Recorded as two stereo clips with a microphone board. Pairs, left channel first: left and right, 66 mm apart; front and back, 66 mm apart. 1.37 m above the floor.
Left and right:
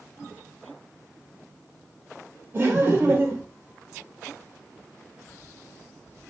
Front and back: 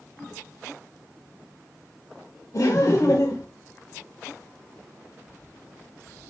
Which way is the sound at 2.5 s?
35° right.